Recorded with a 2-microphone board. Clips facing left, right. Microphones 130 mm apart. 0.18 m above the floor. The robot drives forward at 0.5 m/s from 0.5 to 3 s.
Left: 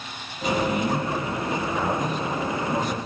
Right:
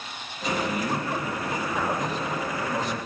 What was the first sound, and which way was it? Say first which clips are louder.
A man speaking: left 4 dB; centre (ahead or behind).